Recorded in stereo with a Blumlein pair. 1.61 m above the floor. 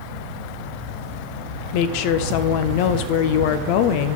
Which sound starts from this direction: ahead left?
A woman speaking, at 1.7 s.